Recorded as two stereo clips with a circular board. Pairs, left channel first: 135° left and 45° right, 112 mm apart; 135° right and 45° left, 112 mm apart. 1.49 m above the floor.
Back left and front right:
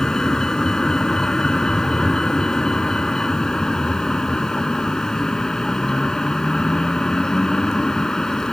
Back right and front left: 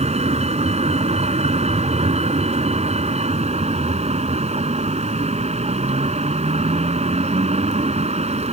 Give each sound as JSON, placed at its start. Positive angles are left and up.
{"t": 0.0, "sound": "a vehicle", "azimuth_deg": 50}